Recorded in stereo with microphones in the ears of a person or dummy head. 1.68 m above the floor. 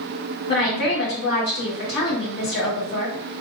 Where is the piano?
No piano in this recording.